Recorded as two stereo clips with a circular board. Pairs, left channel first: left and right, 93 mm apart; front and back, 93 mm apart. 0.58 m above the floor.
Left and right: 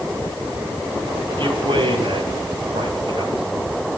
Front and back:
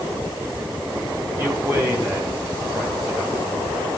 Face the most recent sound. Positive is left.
turn(degrees=-115)